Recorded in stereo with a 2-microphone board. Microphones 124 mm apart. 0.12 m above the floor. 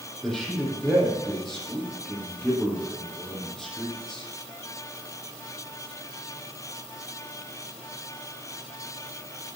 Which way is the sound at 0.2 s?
5° left (ahead or behind).